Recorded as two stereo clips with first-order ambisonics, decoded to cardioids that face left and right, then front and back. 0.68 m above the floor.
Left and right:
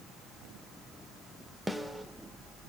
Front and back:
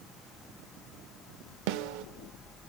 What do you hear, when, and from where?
1.7 s a snare drum: 175° right, 0.7 m